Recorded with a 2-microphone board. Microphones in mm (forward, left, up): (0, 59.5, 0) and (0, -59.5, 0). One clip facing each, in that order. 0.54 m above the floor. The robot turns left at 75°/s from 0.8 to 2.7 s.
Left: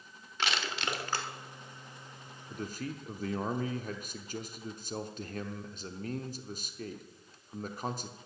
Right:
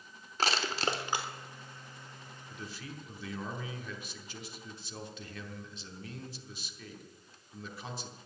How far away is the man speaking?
About 1.0 m.